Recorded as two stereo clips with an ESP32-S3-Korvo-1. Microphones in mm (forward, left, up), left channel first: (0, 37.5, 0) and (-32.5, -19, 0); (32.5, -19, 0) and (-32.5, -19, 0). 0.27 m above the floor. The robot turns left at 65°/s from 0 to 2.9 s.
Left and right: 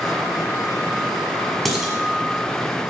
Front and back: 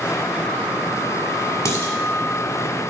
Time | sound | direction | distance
1.6 | dishes clattering | 30° right | 1.7 m